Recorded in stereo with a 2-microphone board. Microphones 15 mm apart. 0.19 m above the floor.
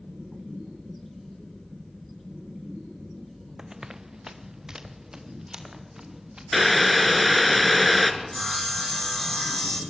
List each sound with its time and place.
3.6 s running footsteps: 35° right (ahead or behind), 0.8 m; by 6.4 s 40° right (ahead or behind), 3.5 m
6.5 s boiling: centre (ahead or behind), 1.4 m
8.2 s sawing: 20° left (ahead or behind), 2.0 m